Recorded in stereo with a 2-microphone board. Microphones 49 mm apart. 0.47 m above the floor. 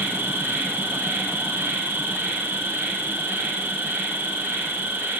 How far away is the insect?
About 1.9 m.